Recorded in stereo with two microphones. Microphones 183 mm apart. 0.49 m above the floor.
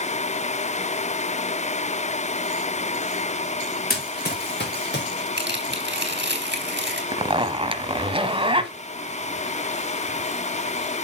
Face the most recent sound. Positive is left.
turn(degrees=-30)  # may be behind; listen again after turning